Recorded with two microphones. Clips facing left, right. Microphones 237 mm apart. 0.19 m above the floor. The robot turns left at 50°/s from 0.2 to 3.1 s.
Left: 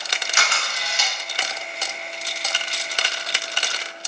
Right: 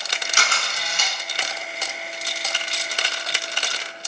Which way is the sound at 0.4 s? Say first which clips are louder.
Even; 50° right.